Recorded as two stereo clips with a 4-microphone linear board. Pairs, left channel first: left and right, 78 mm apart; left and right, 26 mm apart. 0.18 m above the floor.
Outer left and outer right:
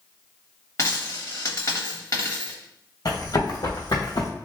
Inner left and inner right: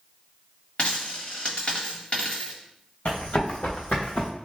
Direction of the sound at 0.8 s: 45° left (ahead or behind).